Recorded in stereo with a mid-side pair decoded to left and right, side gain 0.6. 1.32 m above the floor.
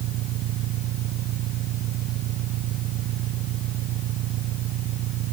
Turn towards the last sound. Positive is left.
turn(degrees=-60)